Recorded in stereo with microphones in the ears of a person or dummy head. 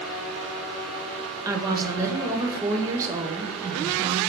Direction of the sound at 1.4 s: 15° right (ahead or behind).